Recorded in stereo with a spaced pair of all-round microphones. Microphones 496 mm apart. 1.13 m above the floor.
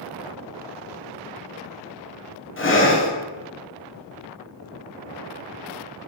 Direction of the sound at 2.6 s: 25° left (ahead or behind).